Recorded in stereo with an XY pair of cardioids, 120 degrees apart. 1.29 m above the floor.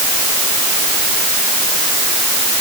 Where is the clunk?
No clunk in this recording.